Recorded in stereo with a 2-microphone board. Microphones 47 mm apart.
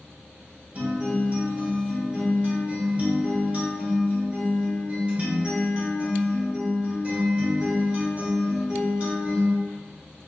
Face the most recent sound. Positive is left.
turn(degrees=-30)  # may be behind; listen again after turning